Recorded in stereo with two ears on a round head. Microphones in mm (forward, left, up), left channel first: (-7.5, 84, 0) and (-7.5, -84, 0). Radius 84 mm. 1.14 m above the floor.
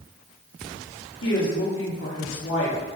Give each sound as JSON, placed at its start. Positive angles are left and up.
{"t": 1.2, "sound": "a woman speaking", "side_deg": 75, "distance_m": 2.5}